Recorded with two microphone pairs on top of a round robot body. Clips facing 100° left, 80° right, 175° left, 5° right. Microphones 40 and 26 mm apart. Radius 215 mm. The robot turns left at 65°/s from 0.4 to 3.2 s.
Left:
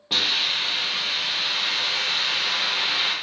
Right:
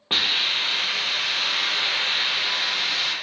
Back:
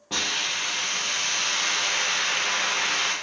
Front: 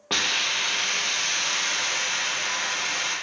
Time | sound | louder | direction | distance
0.1 | a hiss | right 1 dB, front 2 dB | 30° right | 1.1 m